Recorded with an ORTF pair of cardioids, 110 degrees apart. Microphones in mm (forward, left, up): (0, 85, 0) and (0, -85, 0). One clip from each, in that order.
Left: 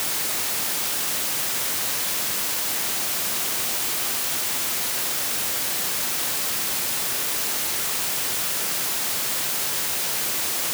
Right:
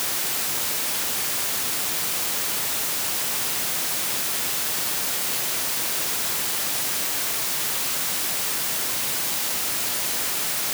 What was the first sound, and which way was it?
Only background noise.